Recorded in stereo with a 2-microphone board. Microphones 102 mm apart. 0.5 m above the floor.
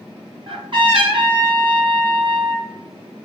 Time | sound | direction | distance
0.5 | a trumpet | 50° right (ahead or behind) | 1.7 m